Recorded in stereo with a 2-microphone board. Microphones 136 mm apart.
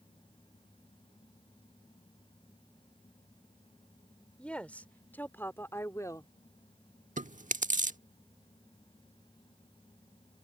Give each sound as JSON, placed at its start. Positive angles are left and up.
{"t": 4.4, "sound": "a woman speaking", "side_deg": 10}
{"t": 7.2, "sound": "chewing", "side_deg": -70}